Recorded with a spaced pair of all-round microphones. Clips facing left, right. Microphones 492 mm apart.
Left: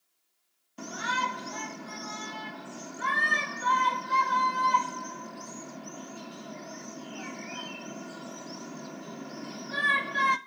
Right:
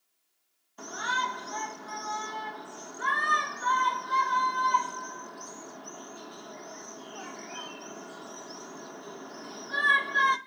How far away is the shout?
About 0.9 m.